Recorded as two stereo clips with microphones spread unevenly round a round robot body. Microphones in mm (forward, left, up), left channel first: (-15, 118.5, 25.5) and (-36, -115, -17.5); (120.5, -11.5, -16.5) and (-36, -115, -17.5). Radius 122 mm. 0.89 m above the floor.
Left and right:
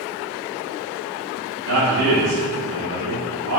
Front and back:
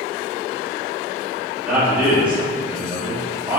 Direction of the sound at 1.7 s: 65° right.